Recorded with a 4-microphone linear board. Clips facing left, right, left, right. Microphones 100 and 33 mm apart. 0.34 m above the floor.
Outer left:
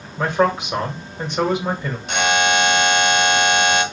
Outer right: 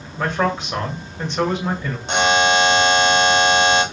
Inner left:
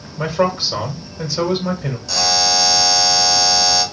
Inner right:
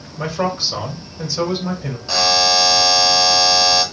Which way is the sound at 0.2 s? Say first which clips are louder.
Outer left 3 dB, inner left 3 dB; 10° left (ahead or behind).